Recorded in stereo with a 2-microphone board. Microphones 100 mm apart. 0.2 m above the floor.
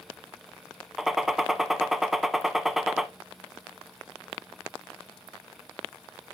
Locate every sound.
1.0 s a gunshot: 5° right (ahead or behind), 0.5 m